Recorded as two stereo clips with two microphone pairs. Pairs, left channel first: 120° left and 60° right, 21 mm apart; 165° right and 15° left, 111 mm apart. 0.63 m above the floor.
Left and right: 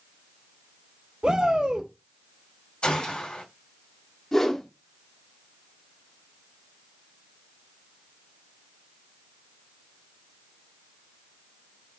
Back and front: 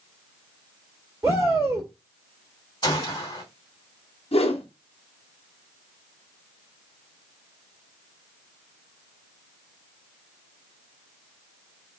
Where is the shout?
40° right, 1.7 m.